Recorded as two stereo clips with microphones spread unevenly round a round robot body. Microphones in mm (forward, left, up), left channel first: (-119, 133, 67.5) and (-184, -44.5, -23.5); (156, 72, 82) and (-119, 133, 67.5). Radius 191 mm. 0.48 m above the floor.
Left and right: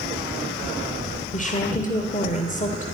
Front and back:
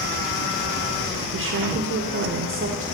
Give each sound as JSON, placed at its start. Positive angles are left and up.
{"t": 1.3, "sound": "a woman speaking", "azimuth_deg": 130, "distance_m": 2.0}